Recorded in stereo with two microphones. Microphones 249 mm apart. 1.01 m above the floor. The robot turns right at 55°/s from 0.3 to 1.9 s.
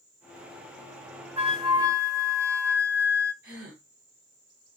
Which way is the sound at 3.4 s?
55° right (ahead or behind).